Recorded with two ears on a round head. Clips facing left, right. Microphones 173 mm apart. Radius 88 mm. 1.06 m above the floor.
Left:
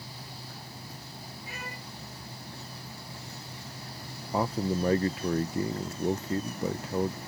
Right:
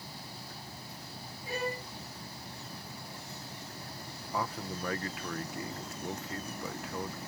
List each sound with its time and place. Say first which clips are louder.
1.5 s a violin: right 11 dB; 30° right (ahead or behind)
4.3 s a man speaking: left 8 dB; 25° left (ahead or behind)